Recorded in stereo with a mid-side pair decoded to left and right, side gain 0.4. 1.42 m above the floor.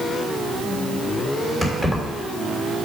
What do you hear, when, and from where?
1.6 s keys jangling: straight ahead, 3.5 m